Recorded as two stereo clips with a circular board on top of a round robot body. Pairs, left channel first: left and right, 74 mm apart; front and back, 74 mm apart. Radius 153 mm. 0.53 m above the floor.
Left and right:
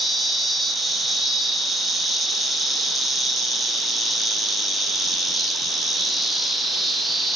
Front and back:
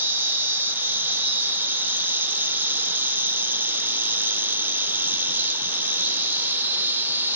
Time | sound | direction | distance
0.0 | an insect | straight behind | 1.0 m